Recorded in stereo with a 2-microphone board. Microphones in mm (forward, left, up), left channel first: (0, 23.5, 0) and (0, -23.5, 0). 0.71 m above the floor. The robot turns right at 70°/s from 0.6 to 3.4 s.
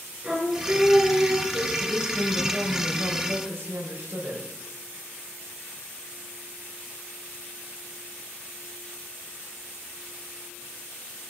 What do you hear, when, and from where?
0.2 s singing: 10° right, 9.5 m; by 1.7 s 65° left, 9.5 m
1.8 s a woman speaking: 135° left, 4 m; by 4.5 s 115° right, 4 m